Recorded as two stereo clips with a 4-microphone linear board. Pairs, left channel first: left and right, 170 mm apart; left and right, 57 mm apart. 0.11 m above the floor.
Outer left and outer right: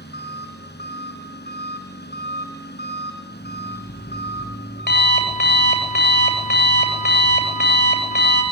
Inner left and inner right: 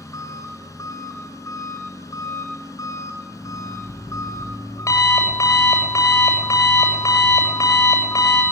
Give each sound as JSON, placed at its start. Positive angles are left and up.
{"t": 0.0, "sound": "an engine running", "side_deg": 85, "distance_m": 7.0}
{"t": 3.3, "sound": "an alarm clock", "side_deg": 80, "distance_m": 10.0}